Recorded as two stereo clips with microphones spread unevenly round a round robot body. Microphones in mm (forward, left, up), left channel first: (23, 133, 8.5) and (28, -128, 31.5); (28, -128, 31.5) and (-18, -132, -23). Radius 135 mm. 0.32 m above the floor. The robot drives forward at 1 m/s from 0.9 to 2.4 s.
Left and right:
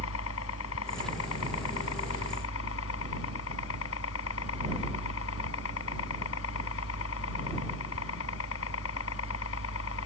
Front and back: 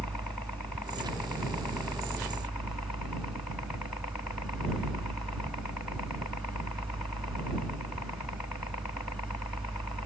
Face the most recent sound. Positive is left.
turn(degrees=125)